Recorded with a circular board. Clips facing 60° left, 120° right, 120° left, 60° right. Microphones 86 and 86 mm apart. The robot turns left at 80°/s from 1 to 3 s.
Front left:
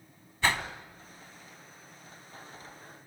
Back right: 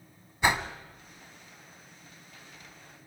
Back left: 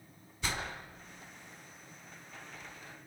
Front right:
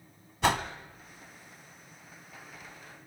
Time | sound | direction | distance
0.4 | a whoosh | 45° right | 1.2 m